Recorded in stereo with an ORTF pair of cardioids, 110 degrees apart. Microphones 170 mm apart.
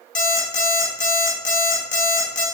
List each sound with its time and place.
0.1 s an alarm clock: 50° left, 1.4 m